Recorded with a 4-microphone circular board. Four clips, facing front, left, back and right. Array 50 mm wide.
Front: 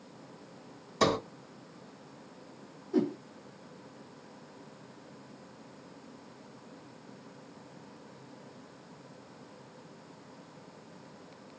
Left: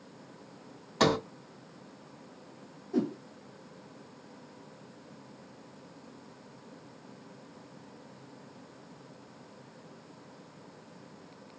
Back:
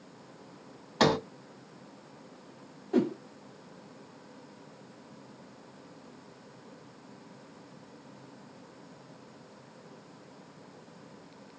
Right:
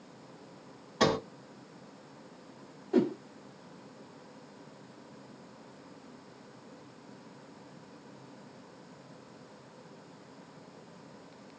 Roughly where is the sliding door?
Behind.